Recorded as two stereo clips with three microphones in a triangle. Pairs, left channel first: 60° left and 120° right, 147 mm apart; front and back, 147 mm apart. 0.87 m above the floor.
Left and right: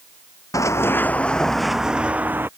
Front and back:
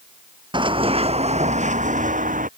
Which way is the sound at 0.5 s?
125° left.